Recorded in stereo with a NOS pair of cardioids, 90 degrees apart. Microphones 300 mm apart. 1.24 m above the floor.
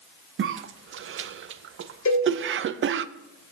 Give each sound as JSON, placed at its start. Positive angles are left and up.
{"t": 0.4, "sound": "a cough", "azimuth_deg": -45, "distance_m": 0.5}
{"t": 2.0, "sound": "a cowbell", "azimuth_deg": 60, "distance_m": 5.5}